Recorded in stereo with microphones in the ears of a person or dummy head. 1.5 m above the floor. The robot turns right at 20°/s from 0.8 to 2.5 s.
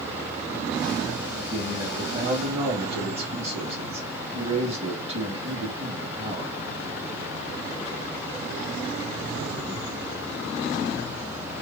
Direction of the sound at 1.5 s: 15° right (ahead or behind).